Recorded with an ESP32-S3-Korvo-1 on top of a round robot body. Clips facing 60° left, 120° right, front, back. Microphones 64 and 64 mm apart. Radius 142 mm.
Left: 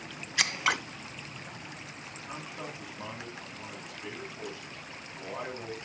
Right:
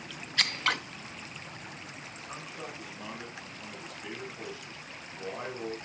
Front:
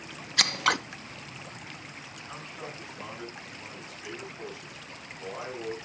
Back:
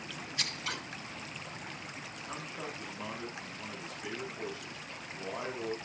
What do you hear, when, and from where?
0.4 s scissors: 20° right, 0.6 m
2.3 s a man speaking: 125° left, 8.5 m